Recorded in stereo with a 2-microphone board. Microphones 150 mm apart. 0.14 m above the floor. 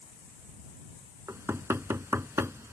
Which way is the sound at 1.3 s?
15° right (ahead or behind).